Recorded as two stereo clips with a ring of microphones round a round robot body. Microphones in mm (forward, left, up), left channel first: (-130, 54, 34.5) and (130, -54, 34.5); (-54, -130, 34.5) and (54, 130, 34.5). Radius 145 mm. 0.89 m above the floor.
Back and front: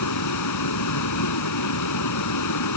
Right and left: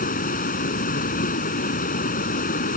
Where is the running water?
175° right.